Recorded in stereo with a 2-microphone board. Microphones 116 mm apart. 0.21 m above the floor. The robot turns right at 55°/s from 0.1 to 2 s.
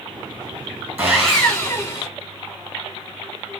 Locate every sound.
1.0 s sawing: 20° right, 1.8 m; by 2.1 s 35° left, 1.8 m